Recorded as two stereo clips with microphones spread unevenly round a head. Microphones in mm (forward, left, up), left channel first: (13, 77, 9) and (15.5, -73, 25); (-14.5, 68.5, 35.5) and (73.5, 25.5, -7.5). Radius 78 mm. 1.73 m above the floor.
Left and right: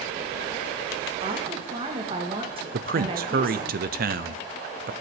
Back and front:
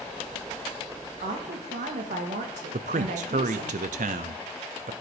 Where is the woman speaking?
35° right, 1.9 m.